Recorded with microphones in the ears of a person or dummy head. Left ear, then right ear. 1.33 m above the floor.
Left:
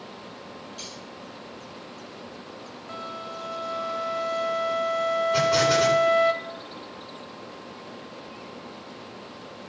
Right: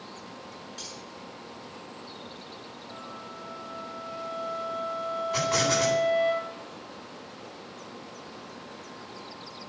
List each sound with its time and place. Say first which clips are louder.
0.8 s cutlery clinking: left 1 dB; 25° right (ahead or behind), 8.5 m
2.9 s a flute: left 8 dB; 65° left (ahead or behind), 1.7 m
5.3 s an explosion: left 3 dB; 35° right (ahead or behind), 9.5 m